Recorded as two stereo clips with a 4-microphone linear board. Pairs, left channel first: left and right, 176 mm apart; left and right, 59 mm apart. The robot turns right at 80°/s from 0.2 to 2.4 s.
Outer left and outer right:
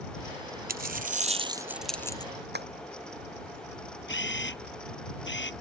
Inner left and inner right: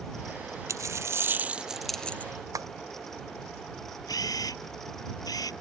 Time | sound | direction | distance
0.7 | a dropped coin | 95° right | ?
2.5 | tapping | 65° right (ahead or behind) | ?
4.1 | a camera shutter | 80° left | ?